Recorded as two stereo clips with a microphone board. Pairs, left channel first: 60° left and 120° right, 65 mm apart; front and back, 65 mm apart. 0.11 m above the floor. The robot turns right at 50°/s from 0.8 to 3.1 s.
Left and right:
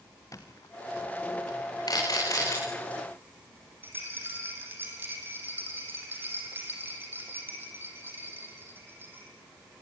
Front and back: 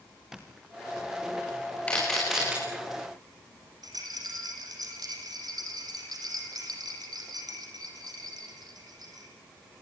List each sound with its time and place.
0.3 s a squeak: 95° left, 3.5 m; by 1.3 s 120° left, 3.5 m
1.9 s a camera shutter: 70° left, 9 m; by 2.6 s 105° left, 9 m
3.8 s a rattle: 175° right, 6 m